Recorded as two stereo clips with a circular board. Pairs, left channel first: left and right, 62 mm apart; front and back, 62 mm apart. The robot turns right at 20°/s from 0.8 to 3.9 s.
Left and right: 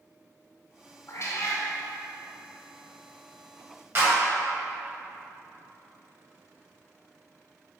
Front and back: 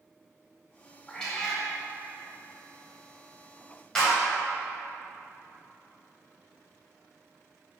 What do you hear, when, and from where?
1.1 s a cat meowing: 75° left, 0.8 m; by 1.6 s 85° left, 0.8 m
4.0 s a clap: 75° right, 1.5 m